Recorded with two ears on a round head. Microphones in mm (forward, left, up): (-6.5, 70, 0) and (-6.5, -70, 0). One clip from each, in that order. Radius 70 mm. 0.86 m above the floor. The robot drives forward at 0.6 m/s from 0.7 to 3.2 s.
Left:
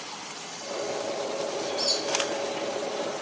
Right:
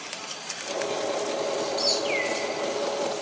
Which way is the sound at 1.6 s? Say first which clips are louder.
Right 1 dB; centre (ahead or behind).